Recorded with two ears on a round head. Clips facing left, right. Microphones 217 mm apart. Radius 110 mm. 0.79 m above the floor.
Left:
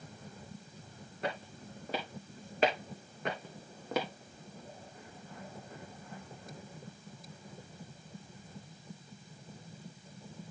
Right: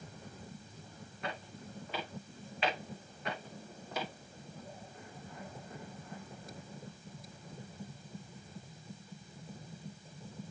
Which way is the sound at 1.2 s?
30° left (ahead or behind).